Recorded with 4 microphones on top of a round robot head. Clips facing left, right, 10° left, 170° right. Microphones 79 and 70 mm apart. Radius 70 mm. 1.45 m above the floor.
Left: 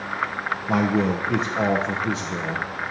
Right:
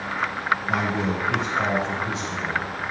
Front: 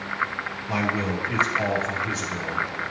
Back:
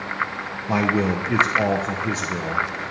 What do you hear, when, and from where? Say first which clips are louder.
0.7 s a man speaking: left 3 dB, back 6 dB; 140° left, 0.8 m